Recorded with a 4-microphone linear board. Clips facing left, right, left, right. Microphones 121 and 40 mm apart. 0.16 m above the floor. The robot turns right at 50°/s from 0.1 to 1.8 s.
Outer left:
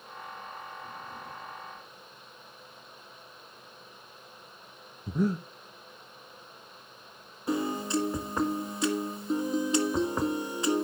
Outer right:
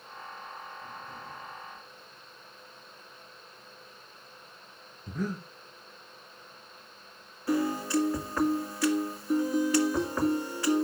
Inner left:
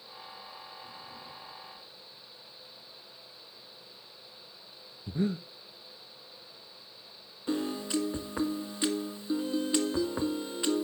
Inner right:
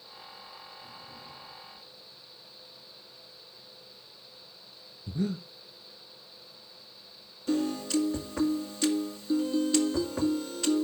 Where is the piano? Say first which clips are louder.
Outer right 2 dB, inner right 3 dB; 20° left (ahead or behind), 1.7 m.